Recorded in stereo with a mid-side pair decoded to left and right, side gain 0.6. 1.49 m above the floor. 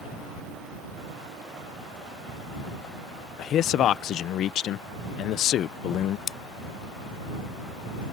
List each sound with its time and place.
3.4 s a man speaking: 55° left
6.3 s scissors: 40° left